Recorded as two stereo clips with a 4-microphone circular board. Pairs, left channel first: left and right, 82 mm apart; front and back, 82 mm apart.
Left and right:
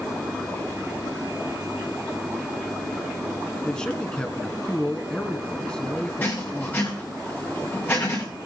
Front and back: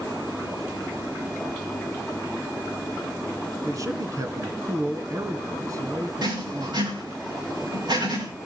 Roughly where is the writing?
Behind left.